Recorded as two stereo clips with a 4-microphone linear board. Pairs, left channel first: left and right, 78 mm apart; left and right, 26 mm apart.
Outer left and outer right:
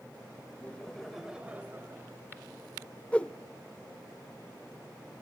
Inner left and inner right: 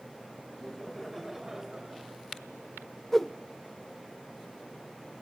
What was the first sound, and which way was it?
Laughter, 25° left (ahead or behind).